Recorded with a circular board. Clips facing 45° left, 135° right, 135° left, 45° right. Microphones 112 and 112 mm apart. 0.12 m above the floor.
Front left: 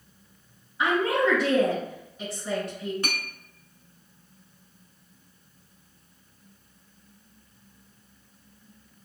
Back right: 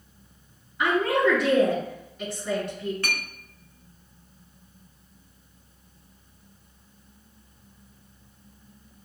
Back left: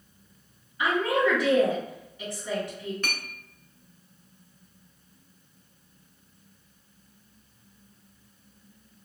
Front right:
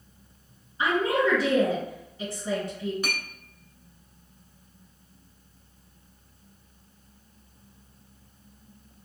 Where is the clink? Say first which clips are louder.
Back right 1 dB, front right 2 dB; 15° left, 0.7 m.